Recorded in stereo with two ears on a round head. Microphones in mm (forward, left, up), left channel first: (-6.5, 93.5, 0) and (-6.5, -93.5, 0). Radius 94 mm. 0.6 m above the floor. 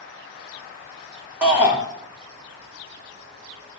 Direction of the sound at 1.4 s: 10° right (ahead or behind).